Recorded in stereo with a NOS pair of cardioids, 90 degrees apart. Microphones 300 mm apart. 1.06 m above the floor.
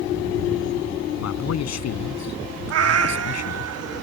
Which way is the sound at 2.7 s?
55° right.